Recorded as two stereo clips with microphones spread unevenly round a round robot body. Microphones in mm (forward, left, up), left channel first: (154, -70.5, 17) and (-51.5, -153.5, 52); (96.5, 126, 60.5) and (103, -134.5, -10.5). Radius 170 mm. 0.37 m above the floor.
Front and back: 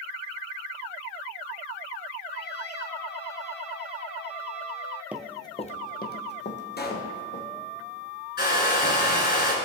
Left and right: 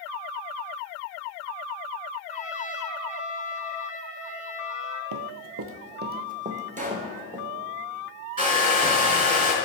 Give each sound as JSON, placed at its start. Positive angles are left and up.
{"t": 2.3, "sound": "a trumpet", "azimuth_deg": 20, "distance_m": 1.2}
{"t": 5.1, "sound": "running footsteps", "azimuth_deg": -80, "distance_m": 0.7}
{"t": 6.8, "sound": "a pop", "azimuth_deg": -25, "distance_m": 1.7}
{"t": 8.4, "sound": "a hair dryer", "azimuth_deg": -20, "distance_m": 3.5}